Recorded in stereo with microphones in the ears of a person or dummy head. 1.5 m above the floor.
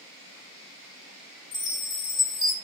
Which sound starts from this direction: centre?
A chime, at 1.5 s.